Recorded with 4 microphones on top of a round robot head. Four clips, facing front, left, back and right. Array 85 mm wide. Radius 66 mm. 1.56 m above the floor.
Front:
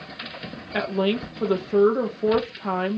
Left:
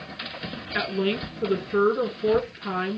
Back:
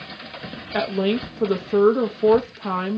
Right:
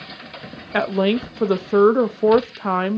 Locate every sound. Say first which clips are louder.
0.7 s a woman speaking: right 7 dB, back 2 dB; 95° right, 0.5 m